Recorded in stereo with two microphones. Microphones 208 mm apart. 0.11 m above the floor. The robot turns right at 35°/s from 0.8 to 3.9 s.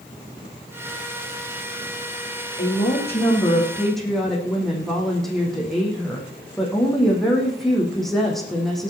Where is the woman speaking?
135° left, 4.5 m; by 8.9 s straight behind, 4.5 m.